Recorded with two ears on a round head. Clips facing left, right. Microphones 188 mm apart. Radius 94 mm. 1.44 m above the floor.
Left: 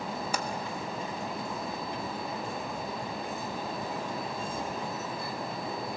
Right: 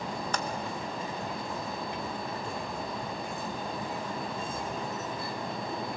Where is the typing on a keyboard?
10° left (ahead or behind), 0.8 m.